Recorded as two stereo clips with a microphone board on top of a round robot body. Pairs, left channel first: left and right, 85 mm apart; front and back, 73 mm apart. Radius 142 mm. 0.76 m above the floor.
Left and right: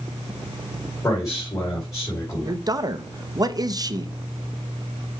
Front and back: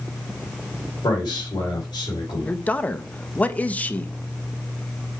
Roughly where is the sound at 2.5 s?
Ahead right.